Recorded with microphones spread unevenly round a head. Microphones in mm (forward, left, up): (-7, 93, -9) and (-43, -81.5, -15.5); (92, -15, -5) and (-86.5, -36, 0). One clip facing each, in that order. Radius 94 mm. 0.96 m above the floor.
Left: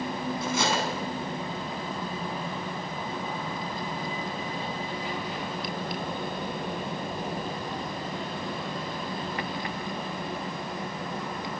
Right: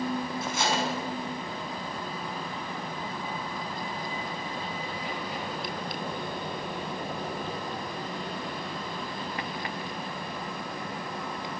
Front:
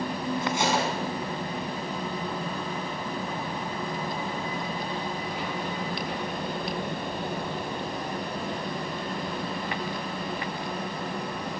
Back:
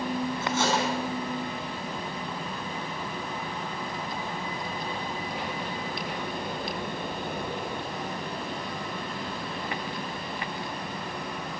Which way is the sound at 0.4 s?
85° left.